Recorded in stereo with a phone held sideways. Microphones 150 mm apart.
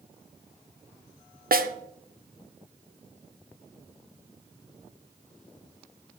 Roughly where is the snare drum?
Right.